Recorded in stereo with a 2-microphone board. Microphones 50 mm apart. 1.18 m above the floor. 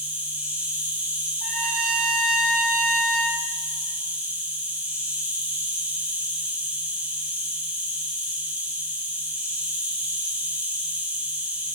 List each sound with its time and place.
0.0 s an insect: 25° right (ahead or behind), 0.9 m
1.4 s a trumpet: 10° left (ahead or behind), 1.8 m